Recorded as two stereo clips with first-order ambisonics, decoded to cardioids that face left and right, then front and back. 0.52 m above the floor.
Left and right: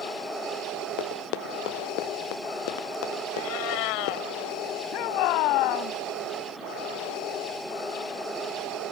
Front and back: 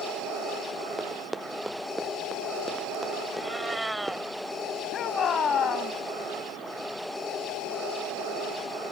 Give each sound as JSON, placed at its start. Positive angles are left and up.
{"t": 1.0, "sound": "running footsteps", "azimuth_deg": 95}
{"t": 3.3, "sound": "a cat meowing", "azimuth_deg": 95}
{"t": 4.9, "sound": "a shout", "azimuth_deg": 65}